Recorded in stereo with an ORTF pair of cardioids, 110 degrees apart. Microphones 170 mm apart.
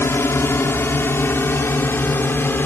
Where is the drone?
15° left; by 2.7 s 10° left.